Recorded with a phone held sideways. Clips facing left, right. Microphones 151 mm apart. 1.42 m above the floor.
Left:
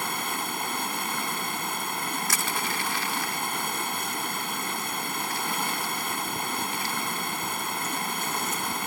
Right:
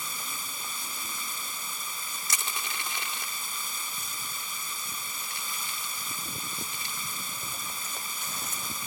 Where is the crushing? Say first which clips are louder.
Left 8 dB; 20° right (ahead or behind).